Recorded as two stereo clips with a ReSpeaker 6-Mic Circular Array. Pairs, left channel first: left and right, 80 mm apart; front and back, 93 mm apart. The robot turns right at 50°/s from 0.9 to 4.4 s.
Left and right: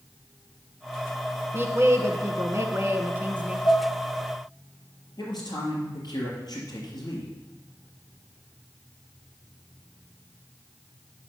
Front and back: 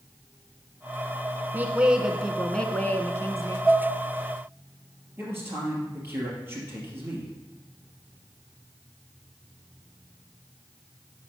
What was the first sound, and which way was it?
A woman speaking, 125° right.